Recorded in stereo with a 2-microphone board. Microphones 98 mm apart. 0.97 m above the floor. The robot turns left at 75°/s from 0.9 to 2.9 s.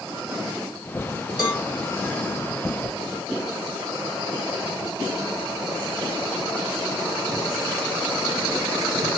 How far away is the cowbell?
About 2 m.